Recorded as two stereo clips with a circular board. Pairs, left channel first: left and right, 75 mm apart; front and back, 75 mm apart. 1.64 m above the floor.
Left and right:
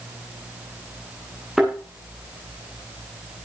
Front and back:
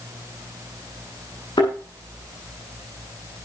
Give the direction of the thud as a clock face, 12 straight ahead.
12 o'clock.